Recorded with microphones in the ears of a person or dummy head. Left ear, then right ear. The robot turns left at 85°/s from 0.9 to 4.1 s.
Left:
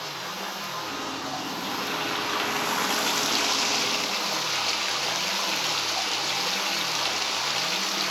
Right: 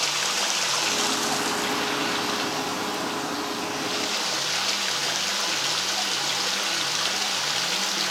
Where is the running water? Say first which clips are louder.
Right 8 dB; 80° right, 0.9 m; by 8.1 s 10° left, 0.9 m.